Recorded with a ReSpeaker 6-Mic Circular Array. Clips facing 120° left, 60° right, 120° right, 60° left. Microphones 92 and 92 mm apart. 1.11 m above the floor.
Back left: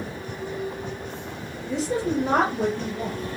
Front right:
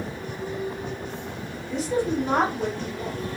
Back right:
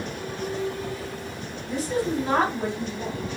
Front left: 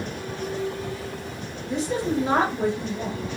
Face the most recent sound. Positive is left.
turn(degrees=130)